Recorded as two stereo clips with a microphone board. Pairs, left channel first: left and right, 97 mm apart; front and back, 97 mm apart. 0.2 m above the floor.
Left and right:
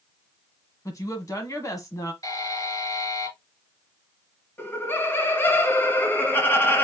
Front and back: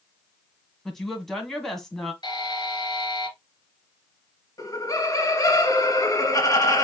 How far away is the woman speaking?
About 1.4 m.